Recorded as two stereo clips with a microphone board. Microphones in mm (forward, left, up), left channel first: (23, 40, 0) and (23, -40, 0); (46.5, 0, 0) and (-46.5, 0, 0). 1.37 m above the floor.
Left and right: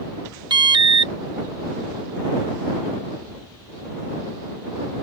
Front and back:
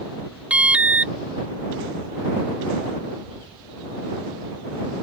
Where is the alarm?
105° right.